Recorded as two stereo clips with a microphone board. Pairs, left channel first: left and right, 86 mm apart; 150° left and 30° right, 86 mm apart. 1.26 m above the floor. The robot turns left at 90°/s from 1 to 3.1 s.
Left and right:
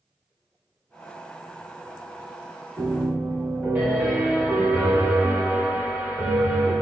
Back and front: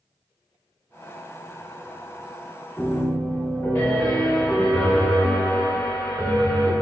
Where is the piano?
130° right, 1.3 m; by 6.7 s 160° right, 1.3 m.